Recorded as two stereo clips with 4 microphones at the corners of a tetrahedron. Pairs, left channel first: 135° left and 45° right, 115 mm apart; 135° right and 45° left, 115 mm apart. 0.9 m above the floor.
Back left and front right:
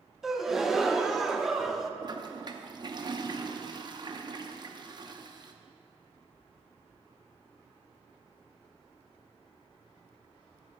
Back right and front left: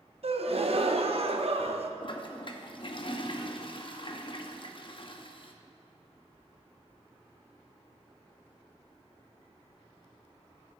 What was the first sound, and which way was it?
A gasp, 40° left.